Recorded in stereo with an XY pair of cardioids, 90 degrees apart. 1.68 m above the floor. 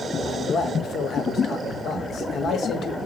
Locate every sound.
0.2 s a man speaking: 65° left, 0.9 m